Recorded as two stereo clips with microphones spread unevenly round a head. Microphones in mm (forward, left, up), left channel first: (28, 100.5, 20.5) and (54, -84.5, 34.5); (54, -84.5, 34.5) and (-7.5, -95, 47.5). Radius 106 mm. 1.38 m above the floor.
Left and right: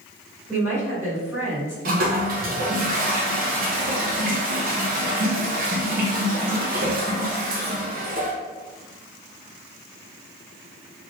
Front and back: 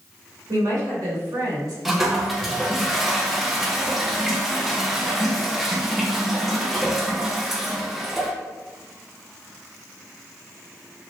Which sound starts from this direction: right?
A toilet flushing, at 1.9 s.